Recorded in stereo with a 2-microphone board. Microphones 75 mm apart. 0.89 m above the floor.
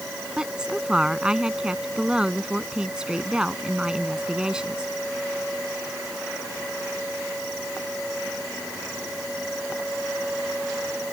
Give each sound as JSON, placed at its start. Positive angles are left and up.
{"t": 0.4, "sound": "a woman speaking", "side_deg": -10}